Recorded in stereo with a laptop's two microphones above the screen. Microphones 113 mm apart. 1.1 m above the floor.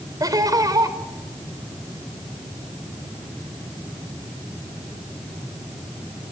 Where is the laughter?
35° right (ahead or behind), 4.5 m.